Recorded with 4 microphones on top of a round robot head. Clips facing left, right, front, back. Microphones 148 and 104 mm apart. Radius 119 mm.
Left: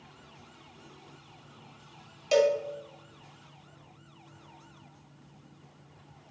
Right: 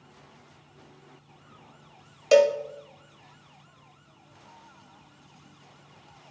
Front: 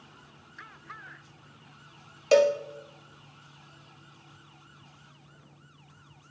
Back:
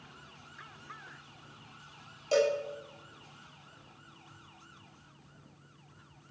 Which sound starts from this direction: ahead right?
A cowbell, at 2.3 s.